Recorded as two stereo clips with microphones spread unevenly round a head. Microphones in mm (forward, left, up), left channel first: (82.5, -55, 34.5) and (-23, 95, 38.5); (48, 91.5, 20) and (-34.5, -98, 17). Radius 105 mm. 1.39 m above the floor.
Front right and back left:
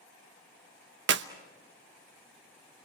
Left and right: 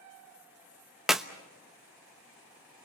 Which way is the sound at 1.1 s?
160° left.